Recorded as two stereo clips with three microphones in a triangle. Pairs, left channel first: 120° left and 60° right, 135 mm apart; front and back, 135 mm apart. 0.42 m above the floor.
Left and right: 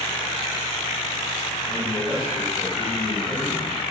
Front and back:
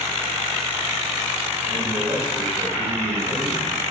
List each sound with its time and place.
1.7 s a man speaking: 170° left, 2.5 m